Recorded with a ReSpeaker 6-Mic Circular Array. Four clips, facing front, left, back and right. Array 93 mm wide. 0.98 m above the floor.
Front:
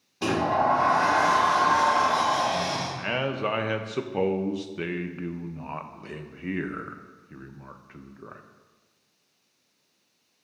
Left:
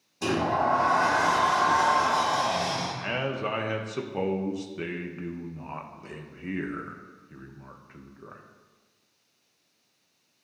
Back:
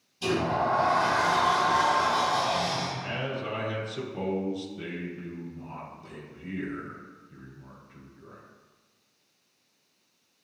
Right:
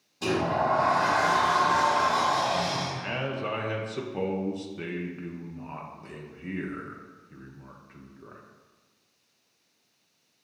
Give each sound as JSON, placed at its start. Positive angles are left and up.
{"t": 0.2, "sound": "a sliding door", "azimuth_deg": 10, "distance_m": 1.6}
{"t": 3.0, "sound": "a man speaking", "azimuth_deg": 15, "distance_m": 0.6}